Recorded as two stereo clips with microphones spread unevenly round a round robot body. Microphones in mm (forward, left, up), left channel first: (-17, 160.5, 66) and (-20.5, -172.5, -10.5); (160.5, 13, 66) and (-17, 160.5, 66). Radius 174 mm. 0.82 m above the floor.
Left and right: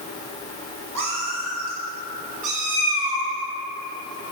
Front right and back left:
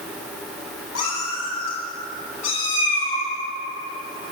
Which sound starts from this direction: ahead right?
A cat meowing, at 0.9 s.